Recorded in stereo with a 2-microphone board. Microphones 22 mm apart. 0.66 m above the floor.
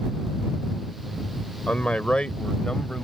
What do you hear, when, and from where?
1.7 s a man speaking: 75° left (ahead or behind); by 3.0 s 45° left (ahead or behind)